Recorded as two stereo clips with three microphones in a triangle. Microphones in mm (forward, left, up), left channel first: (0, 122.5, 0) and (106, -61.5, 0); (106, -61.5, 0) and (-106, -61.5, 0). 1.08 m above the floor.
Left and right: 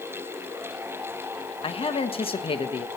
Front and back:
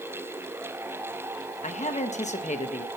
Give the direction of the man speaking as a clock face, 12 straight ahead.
10 o'clock.